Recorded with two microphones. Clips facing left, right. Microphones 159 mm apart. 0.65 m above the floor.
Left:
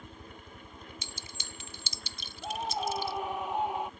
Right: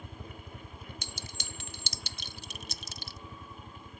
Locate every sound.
0.0 s a helicopter: 65° right (ahead or behind); by 4.0 s 45° right (ahead or behind)
1.0 s a clink: 70° right (ahead or behind)
2.4 s a scream: 85° left